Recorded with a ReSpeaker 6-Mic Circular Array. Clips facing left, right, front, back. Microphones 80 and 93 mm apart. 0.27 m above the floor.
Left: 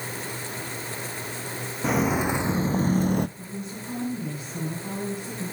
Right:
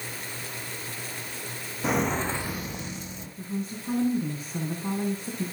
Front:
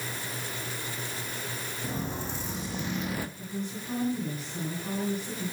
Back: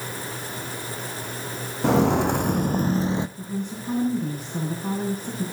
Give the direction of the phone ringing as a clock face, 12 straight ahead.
I don't hear a phone ringing.